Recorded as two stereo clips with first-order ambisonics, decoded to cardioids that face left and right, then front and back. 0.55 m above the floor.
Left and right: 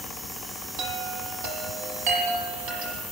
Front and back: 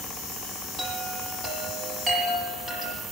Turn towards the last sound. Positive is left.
turn(degrees=-110)